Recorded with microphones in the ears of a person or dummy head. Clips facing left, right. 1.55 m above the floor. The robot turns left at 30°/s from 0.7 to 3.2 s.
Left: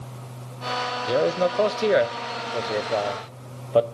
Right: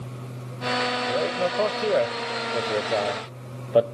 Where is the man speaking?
50° left (ahead or behind), 0.7 m; by 3.9 s 15° right (ahead or behind), 0.7 m.